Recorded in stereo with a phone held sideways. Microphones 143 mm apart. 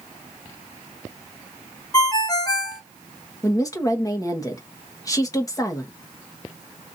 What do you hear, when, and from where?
1.9 s a ringtone: 30° left (ahead or behind), 0.6 m
3.4 s a woman speaking: 25° left (ahead or behind), 1.0 m